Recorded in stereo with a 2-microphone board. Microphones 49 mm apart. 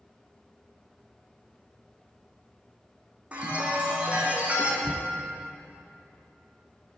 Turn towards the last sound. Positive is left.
turn(degrees=-10)  # may be behind; listen again after turning